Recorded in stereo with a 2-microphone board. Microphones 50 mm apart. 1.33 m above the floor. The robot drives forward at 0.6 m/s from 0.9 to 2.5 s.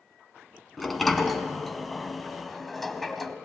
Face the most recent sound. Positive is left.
turn(degrees=5)  # may be behind; listen again after turning